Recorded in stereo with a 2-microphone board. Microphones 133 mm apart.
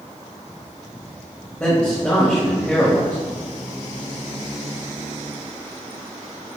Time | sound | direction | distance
1.6 | a man speaking | 10° left (ahead or behind) | 1.3 m